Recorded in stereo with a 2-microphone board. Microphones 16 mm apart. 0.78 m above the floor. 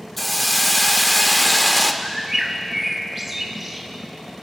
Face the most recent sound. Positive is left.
turn(degrees=-20)  # may be behind; listen again after turning